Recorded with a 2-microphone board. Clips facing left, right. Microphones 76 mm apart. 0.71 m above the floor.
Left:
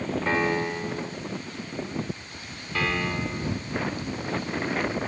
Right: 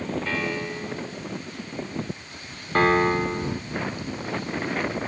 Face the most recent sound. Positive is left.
turn(degrees=-40)  # may be behind; listen again after turning